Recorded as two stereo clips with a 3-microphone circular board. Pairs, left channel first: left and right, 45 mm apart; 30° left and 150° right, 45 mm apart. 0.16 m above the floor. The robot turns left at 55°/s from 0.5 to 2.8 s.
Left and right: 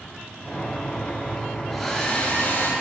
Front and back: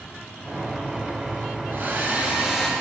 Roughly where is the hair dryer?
Behind.